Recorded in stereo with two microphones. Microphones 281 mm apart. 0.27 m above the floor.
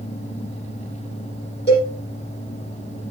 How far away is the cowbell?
About 8 m.